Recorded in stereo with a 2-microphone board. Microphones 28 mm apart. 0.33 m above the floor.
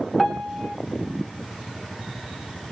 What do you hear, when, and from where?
0.2 s a piano: 10° left (ahead or behind), 1.1 m